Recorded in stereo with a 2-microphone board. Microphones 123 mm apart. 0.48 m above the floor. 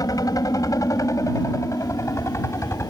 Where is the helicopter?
30° left (ahead or behind); by 2.9 s 20° left (ahead or behind).